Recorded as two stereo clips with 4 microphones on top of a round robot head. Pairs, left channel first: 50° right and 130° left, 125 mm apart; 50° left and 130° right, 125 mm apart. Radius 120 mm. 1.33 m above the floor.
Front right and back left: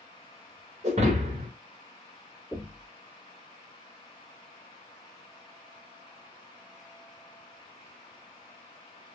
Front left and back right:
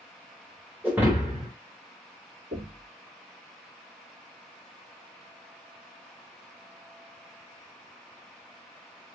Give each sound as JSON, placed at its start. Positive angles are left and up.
{"t": 0.8, "sound": "breaking glass", "azimuth_deg": 155, "distance_m": 0.7}
{"t": 2.5, "sound": "knocking", "azimuth_deg": -135, "distance_m": 1.9}